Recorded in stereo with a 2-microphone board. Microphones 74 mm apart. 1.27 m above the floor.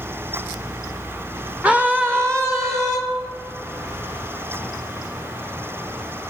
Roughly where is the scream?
Centre.